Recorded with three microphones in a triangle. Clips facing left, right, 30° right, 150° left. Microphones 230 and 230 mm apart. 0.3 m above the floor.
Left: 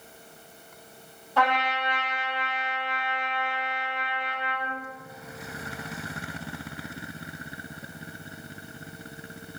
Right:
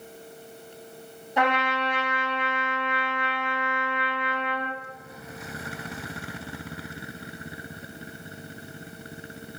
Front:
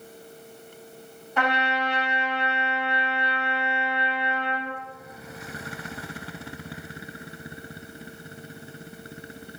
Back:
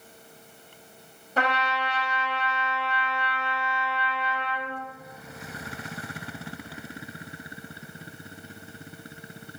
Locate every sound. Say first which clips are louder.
1.4 s a trumpet: right 2 dB, front 2 dB; 160° right, 0.6 m